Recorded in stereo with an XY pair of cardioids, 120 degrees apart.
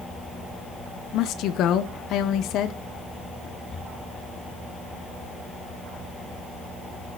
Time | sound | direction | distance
1.1 | a woman speaking | 65° left | 1.4 m